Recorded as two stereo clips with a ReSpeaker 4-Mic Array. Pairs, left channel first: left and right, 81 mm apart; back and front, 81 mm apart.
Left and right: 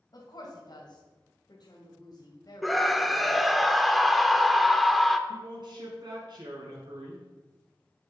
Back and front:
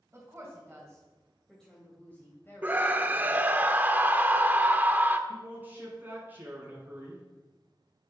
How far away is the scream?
About 0.8 m.